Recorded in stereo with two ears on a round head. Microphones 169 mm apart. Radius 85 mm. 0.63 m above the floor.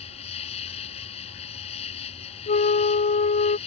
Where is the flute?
35° left (ahead or behind).